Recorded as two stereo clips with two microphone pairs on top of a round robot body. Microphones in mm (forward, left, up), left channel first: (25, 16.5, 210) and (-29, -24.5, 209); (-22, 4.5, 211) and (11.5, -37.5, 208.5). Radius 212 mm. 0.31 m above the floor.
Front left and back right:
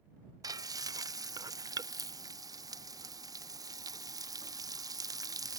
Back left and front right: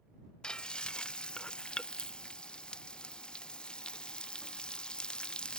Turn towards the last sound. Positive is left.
turn(degrees=-155)